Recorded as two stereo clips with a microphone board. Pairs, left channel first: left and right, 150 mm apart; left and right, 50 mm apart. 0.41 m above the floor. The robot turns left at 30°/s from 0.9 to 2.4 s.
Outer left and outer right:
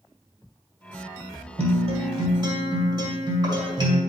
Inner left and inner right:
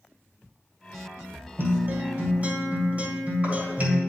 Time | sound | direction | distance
1.6 | a guitar | 45° right (ahead or behind) | 1.9 m